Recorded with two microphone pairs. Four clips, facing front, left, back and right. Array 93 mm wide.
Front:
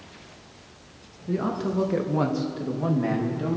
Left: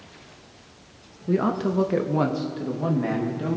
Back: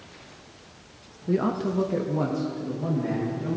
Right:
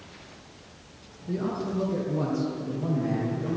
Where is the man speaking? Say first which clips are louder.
Left 7 dB, back 2 dB; 120° left, 0.8 m; by 3.6 s 45° left, 3 m.